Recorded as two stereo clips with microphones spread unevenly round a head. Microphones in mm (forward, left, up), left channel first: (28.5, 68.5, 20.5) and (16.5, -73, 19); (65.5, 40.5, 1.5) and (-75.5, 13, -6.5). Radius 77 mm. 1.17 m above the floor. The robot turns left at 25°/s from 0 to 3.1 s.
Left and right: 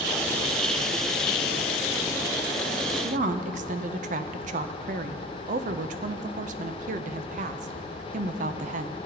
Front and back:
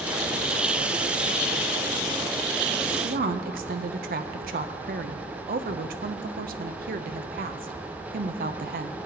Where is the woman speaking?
130° right, 0.5 m; by 9.0 s 135° right, 0.5 m.